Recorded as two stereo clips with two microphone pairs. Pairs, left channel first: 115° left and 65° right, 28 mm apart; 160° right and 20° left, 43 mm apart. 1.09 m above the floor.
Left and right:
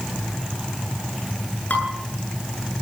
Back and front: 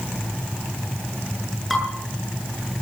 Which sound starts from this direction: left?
Dishes clattering, at 1.7 s.